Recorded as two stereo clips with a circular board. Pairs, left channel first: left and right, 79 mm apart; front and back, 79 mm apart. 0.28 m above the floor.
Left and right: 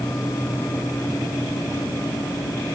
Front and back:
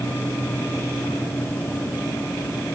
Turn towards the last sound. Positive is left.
No sound to turn to.